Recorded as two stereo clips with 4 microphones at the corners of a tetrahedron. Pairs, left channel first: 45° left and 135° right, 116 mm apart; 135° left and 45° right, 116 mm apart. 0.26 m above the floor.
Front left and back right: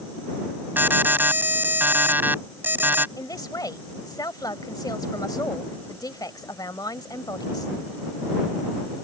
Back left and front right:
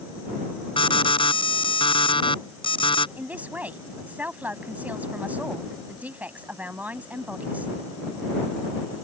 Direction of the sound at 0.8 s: 155° left.